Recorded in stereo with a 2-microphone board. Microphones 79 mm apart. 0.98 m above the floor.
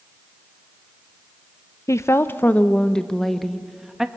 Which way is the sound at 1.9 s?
40° left (ahead or behind).